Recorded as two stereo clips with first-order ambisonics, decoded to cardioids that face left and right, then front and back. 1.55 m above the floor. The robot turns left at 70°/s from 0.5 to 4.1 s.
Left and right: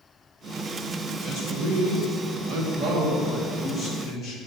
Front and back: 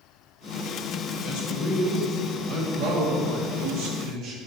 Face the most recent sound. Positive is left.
turn(degrees=140)